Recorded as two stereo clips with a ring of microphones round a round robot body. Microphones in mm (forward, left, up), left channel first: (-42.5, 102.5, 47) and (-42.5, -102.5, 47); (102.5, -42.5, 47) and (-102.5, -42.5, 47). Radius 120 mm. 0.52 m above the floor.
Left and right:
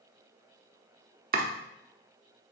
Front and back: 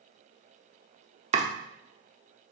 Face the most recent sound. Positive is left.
turn(degrees=-130)